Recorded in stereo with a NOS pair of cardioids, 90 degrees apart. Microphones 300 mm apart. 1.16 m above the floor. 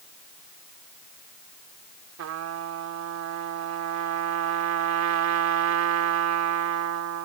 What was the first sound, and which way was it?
A trumpet, 70° right.